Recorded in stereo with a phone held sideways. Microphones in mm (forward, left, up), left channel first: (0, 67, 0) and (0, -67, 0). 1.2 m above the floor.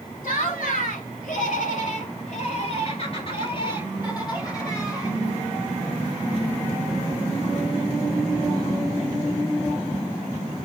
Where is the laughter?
85° left, 2.5 m; by 5.2 s 25° left (ahead or behind), 4.5 m.